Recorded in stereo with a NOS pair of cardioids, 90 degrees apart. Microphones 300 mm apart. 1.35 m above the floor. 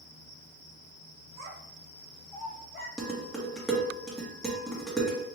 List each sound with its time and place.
1.4 s a child speaking: 60° right, 1.1 m; by 2.9 s 35° left, 1.6 m
3.0 s dishes clattering: straight ahead, 1.1 m